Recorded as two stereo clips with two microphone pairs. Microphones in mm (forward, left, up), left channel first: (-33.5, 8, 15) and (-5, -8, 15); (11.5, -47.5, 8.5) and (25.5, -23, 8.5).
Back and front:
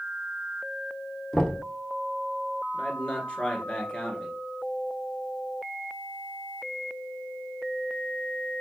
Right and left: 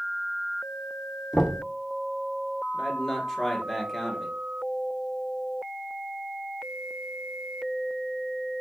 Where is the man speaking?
170° left, 1.3 m.